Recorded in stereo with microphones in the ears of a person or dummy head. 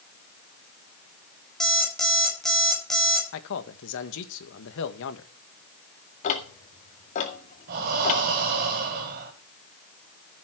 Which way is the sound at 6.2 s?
40° left (ahead or behind).